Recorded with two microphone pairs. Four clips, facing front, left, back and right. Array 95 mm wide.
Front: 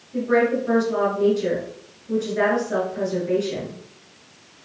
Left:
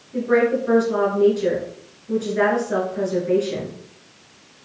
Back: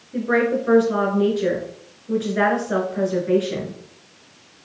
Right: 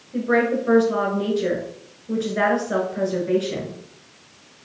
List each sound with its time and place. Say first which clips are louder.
0.1 s a woman speaking: left 2 dB, even; 155° right, 1.3 m